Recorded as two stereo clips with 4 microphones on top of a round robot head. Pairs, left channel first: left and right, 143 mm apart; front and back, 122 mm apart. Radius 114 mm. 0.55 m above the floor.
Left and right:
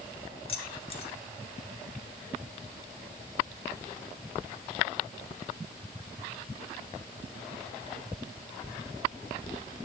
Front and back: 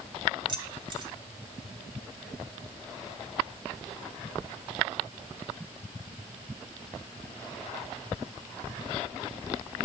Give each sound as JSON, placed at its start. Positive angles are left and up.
{"t": 0.5, "sound": "keys jangling", "azimuth_deg": 130, "distance_m": 1.6}